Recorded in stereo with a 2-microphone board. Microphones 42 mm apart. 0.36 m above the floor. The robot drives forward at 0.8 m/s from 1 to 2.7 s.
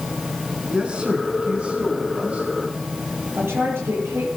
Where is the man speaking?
25° right (ahead or behind), 4 m; by 2.5 s 35° right (ahead or behind), 3 m.